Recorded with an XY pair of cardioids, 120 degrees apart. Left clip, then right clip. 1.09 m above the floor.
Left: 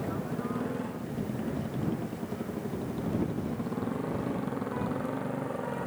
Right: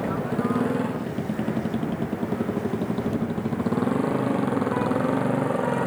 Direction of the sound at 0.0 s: 50° right.